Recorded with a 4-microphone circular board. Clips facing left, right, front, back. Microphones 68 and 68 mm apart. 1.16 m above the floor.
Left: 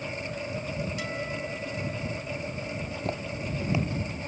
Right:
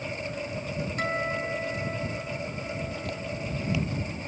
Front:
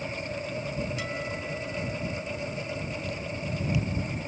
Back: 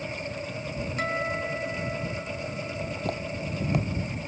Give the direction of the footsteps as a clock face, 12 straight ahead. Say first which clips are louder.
Left 1 dB, back 3 dB; 7 o'clock.